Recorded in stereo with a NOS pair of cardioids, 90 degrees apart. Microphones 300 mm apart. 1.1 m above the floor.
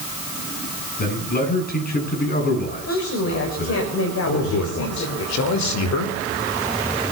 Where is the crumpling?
I don't hear crumpling.